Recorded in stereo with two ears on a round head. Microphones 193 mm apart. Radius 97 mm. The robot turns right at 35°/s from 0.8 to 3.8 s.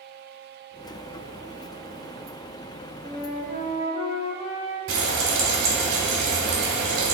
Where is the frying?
55° right (ahead or behind), 1.0 m.